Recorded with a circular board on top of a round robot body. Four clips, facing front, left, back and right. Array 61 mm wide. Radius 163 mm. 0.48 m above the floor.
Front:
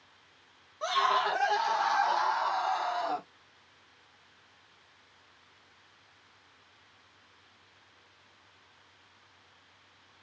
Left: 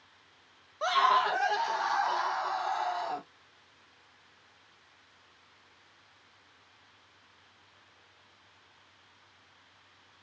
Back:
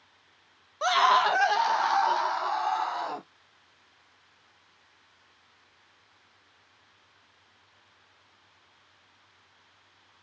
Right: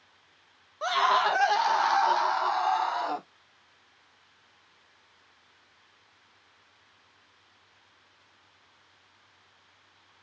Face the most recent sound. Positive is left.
turn(degrees=-115)